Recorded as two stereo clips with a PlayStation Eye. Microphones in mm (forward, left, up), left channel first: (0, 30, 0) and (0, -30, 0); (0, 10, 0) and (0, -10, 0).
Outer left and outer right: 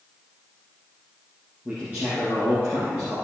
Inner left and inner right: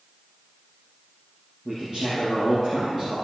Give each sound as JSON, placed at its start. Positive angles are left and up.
{"t": 1.6, "sound": "a man speaking", "side_deg": -25, "distance_m": 3.5}